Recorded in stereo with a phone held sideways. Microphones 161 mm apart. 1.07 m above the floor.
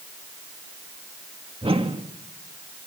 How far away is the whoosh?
About 1.6 m.